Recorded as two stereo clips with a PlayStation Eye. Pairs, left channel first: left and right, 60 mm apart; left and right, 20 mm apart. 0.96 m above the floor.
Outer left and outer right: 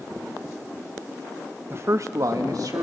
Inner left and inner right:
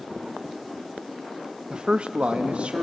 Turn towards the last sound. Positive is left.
turn(degrees=-75)  # may be behind; listen again after turning